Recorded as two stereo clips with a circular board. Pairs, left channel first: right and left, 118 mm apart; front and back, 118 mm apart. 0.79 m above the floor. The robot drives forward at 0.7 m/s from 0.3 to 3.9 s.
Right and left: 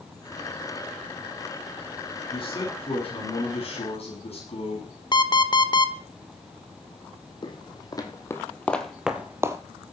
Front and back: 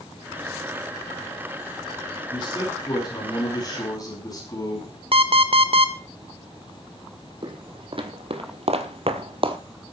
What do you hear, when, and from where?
2.3 s a man speaking: 50° right, 7.5 m; by 5.0 s 60° right, 6.5 m
5.1 s an alarm clock: 140° right, 1.2 m
7.4 s footsteps: 135° right, 2 m; by 9.6 s 150° left, 1.3 m